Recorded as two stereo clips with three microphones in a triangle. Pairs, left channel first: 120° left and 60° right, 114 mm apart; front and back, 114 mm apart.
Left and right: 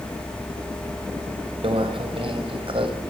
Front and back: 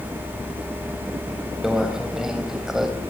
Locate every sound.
1.6 s a microwave: 95° right, 3.5 m